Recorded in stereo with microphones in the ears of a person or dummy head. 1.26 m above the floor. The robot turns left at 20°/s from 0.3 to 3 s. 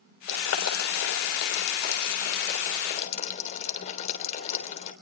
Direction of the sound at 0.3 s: 85° left.